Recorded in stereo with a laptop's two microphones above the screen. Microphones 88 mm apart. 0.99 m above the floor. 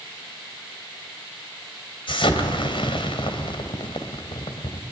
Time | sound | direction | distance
2.1 | an explosion | 70° left (ahead or behind) | 2.5 m